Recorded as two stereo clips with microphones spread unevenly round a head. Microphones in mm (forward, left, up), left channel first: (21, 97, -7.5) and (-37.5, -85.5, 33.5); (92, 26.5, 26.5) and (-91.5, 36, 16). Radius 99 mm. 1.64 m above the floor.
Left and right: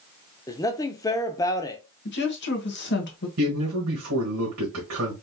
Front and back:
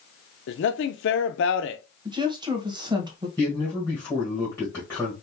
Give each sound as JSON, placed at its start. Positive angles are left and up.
{"t": 0.5, "sound": "a man speaking", "azimuth_deg": -5, "distance_m": 0.5}
{"t": 2.0, "sound": "a woman speaking", "azimuth_deg": 110, "distance_m": 1.3}
{"t": 3.4, "sound": "a man speaking", "azimuth_deg": -85, "distance_m": 1.6}